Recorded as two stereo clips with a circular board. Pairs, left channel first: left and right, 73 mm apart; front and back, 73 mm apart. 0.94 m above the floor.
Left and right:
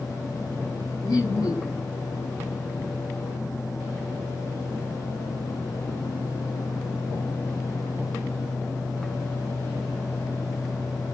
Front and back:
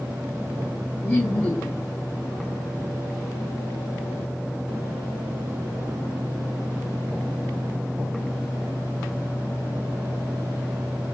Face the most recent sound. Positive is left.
turn(degrees=65)